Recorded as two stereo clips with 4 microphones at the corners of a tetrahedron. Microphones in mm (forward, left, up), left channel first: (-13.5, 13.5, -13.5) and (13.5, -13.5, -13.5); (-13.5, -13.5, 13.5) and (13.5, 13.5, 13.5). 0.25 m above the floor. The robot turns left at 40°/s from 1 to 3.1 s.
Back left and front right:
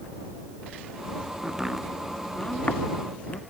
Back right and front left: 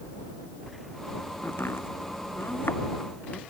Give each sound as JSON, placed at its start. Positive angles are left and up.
{"t": 1.4, "sound": "chopping", "azimuth_deg": -115}